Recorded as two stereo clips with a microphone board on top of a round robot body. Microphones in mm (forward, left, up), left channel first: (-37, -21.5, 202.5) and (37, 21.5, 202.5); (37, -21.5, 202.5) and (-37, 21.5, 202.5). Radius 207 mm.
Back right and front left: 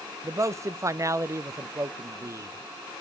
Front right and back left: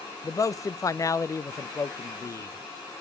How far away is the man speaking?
About 0.6 m.